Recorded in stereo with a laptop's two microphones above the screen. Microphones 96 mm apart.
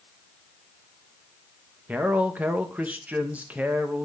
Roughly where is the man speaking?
Centre.